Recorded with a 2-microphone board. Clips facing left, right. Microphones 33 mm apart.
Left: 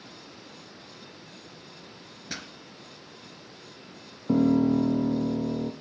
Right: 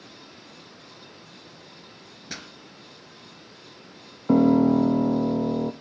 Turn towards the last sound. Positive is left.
turn(degrees=-40)  # may be behind; listen again after turning